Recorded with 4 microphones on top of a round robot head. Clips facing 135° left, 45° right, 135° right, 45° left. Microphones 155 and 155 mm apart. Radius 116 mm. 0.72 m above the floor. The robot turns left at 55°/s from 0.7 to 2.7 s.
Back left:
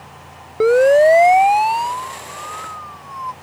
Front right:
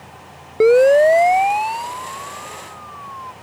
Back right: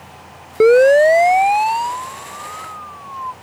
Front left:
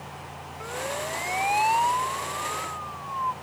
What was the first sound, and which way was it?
A siren, 125° right.